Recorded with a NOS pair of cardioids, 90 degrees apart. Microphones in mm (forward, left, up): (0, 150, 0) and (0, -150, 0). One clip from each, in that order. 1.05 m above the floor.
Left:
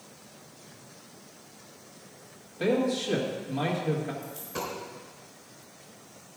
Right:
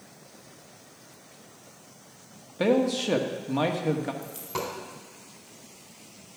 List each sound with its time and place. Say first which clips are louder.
2.6 s a man speaking: right 3 dB; 65° right, 1.7 m
4.2 s a dropped coin: right 2 dB; 65° right, 3.5 m